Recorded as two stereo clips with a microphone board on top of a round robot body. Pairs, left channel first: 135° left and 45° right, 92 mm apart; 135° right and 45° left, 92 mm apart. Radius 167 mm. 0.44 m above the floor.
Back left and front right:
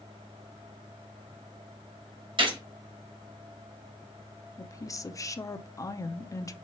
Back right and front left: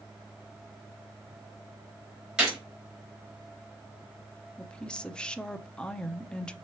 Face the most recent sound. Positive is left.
turn(degrees=150)